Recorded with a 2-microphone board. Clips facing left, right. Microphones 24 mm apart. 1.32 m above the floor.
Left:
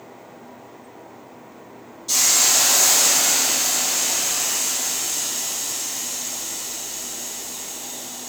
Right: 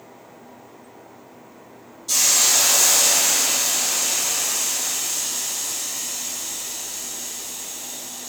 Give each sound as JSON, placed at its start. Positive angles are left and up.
{"t": 2.1, "sound": "a hiss", "side_deg": 15, "distance_m": 1.2}